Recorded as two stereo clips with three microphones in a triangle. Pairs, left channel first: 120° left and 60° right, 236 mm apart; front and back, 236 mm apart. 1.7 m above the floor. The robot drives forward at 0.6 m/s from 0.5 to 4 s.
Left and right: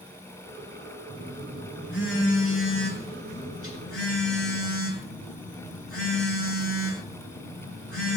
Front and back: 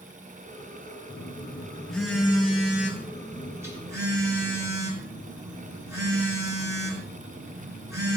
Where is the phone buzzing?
80° left, 5 m; by 8.2 s 105° left, 5 m.